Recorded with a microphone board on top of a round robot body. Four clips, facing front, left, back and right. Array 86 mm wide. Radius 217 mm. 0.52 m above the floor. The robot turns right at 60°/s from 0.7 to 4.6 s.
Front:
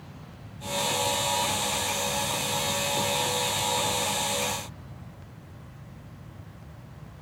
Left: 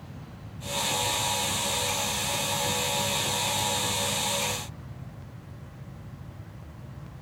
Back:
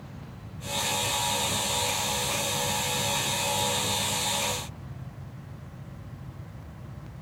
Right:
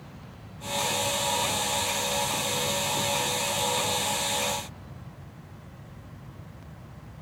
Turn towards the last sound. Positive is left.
No sound to turn to.